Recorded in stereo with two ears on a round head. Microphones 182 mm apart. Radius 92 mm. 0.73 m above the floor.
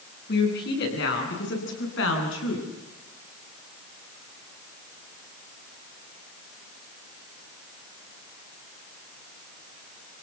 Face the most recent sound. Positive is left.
turn(degrees=70)  # may be behind; listen again after turning